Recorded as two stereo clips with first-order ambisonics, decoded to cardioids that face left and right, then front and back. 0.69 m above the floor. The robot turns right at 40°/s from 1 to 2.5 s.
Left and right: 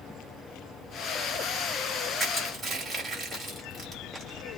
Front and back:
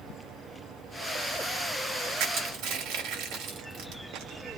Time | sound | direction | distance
2.2 | crushing | 170° right | 1.6 m